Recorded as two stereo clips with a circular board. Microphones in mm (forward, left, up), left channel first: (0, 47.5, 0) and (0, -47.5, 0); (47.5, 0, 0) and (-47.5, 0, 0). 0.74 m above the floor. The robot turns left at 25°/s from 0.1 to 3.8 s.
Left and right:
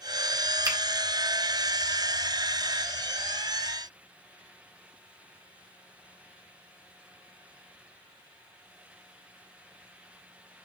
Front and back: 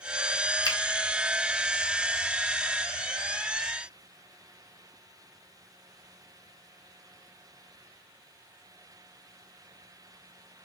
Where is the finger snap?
45° right, 1.2 m; by 0.8 s 50° right, 1.2 m.